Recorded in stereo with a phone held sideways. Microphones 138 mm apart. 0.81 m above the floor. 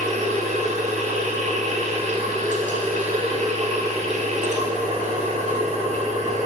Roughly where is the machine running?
Right.